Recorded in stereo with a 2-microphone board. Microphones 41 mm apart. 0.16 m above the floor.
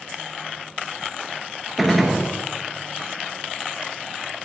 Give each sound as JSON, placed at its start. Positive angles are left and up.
{"t": 1.8, "sound": "a gunshot", "side_deg": 0, "distance_m": 0.9}